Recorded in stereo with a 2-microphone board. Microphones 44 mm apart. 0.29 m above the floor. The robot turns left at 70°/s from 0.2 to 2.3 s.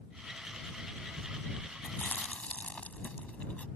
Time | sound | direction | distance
1.8 | chewing | 55° left (ahead or behind) | ?